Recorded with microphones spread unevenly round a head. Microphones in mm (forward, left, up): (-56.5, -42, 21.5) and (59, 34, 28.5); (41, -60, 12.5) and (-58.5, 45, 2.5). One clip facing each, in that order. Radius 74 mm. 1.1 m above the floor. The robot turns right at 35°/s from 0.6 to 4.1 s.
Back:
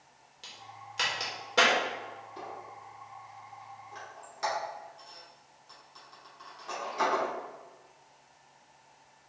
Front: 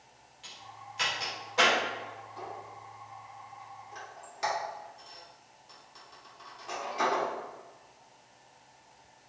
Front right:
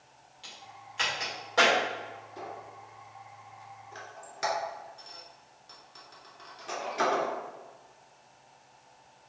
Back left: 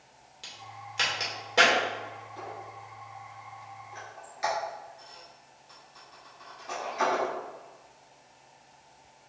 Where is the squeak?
110° right, 2.0 m; by 7.3 s 50° right, 2.0 m.